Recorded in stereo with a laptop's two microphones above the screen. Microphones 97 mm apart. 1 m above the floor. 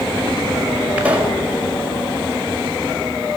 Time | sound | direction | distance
1.0 | a pop | 15° right (ahead or behind) | 6 m